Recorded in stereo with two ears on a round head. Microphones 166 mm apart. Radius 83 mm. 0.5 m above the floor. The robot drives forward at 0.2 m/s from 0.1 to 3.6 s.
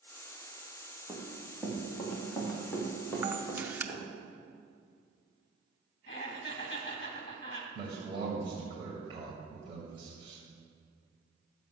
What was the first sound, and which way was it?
Running footsteps, 5° right (ahead or behind).